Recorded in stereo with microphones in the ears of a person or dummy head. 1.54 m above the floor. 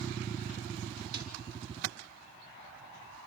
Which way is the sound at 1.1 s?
60° right (ahead or behind).